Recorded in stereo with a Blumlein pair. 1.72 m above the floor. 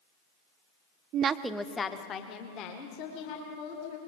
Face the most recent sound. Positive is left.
turn(degrees=50)